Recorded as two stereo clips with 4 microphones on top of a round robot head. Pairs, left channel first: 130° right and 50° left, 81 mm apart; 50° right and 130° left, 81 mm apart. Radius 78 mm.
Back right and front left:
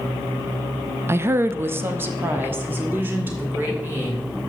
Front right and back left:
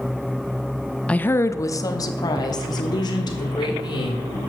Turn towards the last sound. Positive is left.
turn(degrees=-20)